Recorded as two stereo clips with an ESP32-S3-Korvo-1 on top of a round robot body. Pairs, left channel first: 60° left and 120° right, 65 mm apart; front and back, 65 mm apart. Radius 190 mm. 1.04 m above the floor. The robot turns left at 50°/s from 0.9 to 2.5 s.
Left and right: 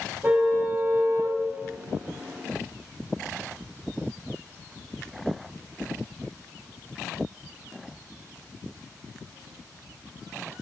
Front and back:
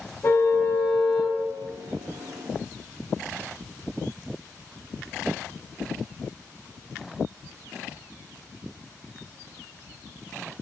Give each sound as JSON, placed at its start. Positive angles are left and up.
{"t": 0.2, "sound": "a car horn", "azimuth_deg": -50, "distance_m": 5.5}